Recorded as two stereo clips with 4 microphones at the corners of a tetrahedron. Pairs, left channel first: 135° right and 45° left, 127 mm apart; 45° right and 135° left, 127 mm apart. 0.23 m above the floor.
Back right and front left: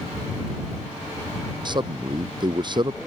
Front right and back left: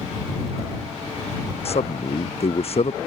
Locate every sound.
1.6 s a man speaking: 10° right